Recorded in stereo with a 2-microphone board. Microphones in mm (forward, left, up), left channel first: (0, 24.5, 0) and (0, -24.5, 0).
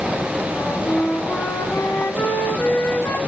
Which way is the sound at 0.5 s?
60° left (ahead or behind).